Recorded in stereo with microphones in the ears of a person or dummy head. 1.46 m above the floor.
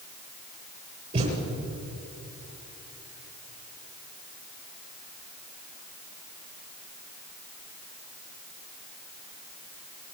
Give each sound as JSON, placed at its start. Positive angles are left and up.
{"t": 1.1, "sound": "a thud", "side_deg": -35, "distance_m": 7.0}